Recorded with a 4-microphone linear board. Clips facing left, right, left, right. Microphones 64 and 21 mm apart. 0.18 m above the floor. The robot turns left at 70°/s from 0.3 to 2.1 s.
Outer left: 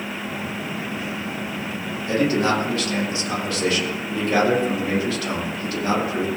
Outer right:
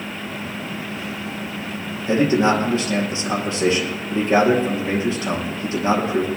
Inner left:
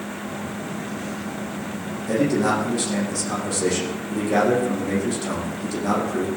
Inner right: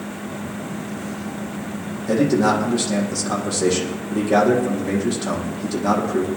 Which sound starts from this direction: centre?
A man speaking, at 2.1 s.